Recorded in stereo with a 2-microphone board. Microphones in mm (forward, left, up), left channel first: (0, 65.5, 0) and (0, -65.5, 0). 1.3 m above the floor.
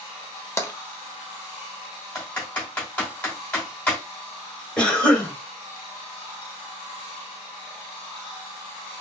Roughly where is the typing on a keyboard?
Centre.